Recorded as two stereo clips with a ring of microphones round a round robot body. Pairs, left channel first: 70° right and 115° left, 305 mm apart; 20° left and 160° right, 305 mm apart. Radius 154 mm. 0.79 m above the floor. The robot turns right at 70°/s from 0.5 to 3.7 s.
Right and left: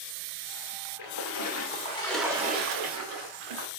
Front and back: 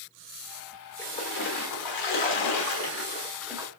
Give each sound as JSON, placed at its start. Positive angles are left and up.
{"t": 1.0, "sound": "a splash", "azimuth_deg": -60, "distance_m": 1.1}